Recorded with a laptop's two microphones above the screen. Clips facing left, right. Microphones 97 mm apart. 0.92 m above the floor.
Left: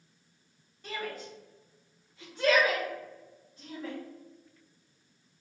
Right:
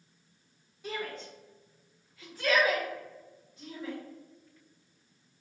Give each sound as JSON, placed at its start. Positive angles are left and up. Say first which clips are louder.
{"t": 0.8, "sound": "a shout", "louder": "even", "side_deg": -5, "distance_m": 0.9}